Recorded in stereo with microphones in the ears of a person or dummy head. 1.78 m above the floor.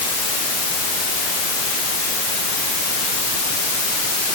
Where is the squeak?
No squeak in this recording.